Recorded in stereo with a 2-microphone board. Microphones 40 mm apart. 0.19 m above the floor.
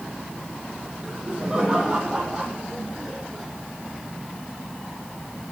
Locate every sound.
1.0 s laughter: 20° right (ahead or behind), 9 m; by 3.5 s 5° right (ahead or behind), 10 m